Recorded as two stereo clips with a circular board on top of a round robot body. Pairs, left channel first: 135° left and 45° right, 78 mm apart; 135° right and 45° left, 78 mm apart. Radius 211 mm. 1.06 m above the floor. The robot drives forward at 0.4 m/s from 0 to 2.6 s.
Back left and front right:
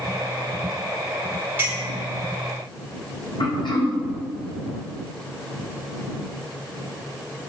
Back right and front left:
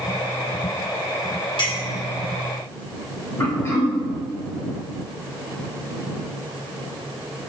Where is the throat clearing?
165° left, 2 m.